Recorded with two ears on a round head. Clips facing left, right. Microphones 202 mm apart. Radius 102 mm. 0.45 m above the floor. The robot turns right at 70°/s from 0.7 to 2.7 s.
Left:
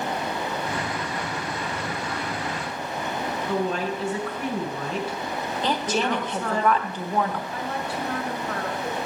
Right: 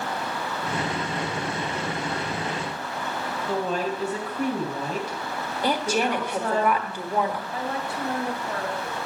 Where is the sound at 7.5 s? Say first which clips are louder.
Even; 20° right (ahead or behind), 2.5 m.